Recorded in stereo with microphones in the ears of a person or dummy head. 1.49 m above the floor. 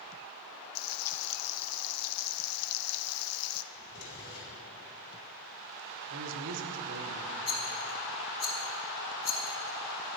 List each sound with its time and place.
0.8 s frying: 85° left, 0.7 m
3.7 s a drawer: 70° left (ahead or behind), 4.5 m
6.1 s a man speaking: 70° right (ahead or behind), 1.3 m
7.5 s a rattle: 30° left (ahead or behind), 1.2 m